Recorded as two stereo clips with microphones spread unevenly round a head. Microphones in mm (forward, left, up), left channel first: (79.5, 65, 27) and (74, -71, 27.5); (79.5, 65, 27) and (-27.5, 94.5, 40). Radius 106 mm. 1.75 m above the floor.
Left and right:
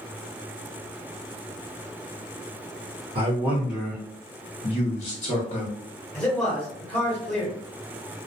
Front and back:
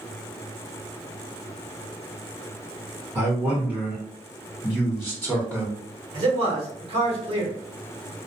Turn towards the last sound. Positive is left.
turn(degrees=165)